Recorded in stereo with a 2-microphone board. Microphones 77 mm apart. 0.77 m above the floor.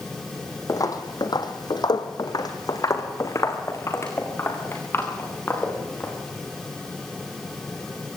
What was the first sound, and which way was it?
Footsteps, 50° left (ahead or behind).